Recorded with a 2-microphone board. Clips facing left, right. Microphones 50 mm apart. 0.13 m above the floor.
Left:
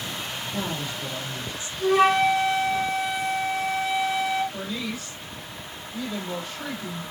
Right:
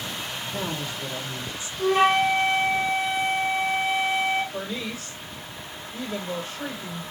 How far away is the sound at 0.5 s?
About 4.5 m.